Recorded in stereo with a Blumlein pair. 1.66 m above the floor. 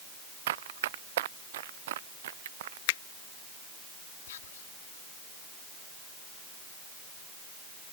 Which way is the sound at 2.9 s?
50° left.